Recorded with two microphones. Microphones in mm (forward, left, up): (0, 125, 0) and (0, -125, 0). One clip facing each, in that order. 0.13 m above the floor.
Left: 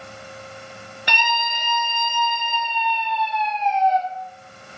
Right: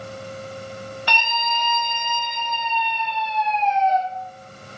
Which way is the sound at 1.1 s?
20° left (ahead or behind).